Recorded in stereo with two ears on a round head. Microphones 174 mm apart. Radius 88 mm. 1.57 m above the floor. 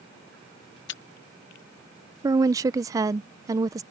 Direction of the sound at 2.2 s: 15° right (ahead or behind).